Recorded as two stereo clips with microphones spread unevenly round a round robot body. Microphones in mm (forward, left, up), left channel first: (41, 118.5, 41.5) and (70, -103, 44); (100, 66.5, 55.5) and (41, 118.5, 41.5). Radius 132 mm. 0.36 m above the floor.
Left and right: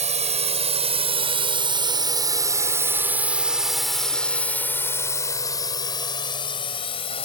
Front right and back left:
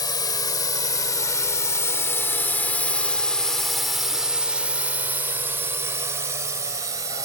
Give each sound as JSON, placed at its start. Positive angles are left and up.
{"t": 0.0, "sound": "a drone", "azimuth_deg": -35}